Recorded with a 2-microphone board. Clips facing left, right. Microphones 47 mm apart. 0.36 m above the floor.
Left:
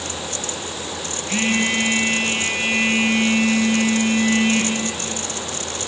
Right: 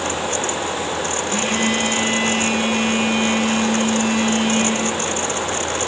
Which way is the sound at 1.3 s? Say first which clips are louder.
Left 2 dB; 50° left (ahead or behind).